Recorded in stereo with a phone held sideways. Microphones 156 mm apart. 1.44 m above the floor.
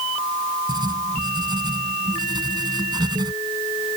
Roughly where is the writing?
Right.